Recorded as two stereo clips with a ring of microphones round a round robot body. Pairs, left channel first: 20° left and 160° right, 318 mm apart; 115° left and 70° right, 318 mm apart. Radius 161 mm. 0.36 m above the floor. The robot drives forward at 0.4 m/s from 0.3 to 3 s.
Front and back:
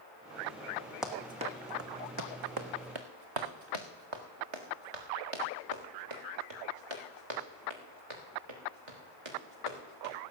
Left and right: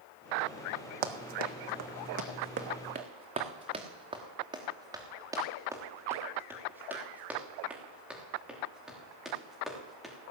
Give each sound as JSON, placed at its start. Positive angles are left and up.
{"t": 1.0, "sound": "running footsteps", "azimuth_deg": -70, "distance_m": 1.3}